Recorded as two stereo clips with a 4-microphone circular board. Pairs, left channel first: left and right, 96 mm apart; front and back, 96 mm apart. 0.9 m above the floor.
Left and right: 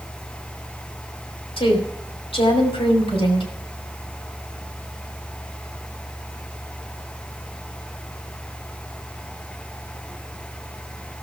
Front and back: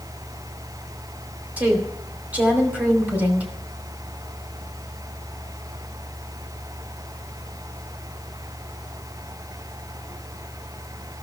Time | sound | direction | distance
1.6 | a woman speaking | 105° left | 2.5 m